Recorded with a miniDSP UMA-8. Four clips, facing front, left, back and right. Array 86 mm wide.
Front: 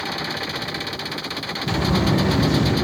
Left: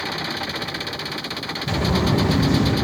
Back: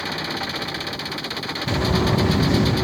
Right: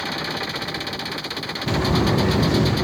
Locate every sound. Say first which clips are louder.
1.7 s footsteps: right 1 dB, even; 105° right, 2.0 m; by 2.7 s 80° right, 2 m